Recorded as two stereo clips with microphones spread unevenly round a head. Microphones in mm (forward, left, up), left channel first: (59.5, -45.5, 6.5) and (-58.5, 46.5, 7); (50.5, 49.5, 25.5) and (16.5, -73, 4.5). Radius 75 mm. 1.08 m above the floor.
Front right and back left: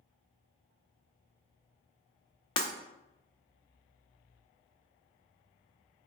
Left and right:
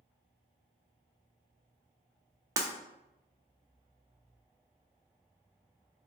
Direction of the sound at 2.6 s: 45° right.